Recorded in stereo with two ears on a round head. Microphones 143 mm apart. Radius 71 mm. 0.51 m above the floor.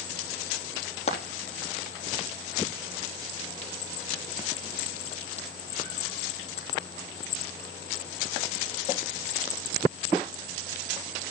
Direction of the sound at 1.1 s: 45° left (ahead or behind).